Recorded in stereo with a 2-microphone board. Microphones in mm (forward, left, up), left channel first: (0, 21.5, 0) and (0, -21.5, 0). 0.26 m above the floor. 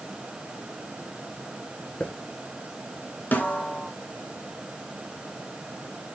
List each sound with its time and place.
2.0 s a hiss: 30° left (ahead or behind), 1.4 m
3.3 s a snare drum: 40° left (ahead or behind), 1.5 m